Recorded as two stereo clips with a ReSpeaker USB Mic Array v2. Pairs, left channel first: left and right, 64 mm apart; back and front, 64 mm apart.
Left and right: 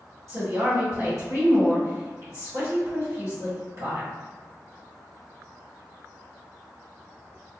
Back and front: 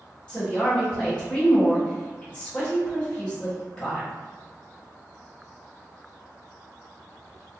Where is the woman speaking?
110° right, 1.3 m.